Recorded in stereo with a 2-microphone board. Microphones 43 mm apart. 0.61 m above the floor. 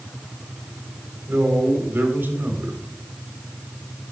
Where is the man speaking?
60° right (ahead or behind), 3.5 m.